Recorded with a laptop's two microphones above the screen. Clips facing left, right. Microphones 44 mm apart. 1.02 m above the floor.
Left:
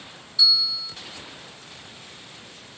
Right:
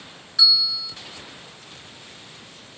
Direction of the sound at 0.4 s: 75° right (ahead or behind).